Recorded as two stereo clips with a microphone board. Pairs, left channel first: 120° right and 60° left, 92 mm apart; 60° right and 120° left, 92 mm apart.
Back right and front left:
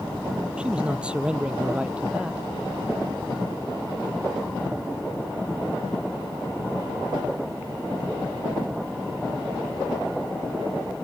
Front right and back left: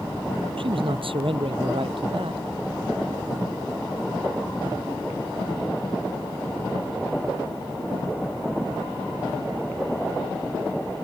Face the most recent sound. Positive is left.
turn(degrees=140)